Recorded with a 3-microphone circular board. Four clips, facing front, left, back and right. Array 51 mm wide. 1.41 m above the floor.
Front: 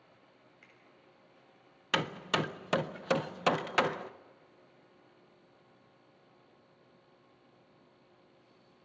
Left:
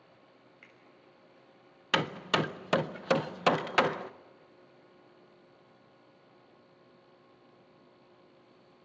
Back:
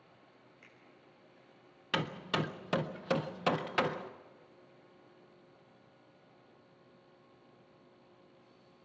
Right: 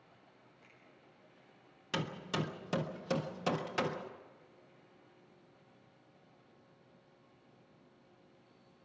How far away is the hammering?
About 0.6 m.